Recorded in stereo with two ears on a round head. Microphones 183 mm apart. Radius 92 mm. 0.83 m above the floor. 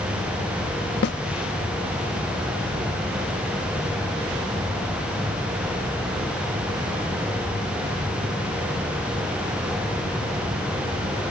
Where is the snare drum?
55° left (ahead or behind).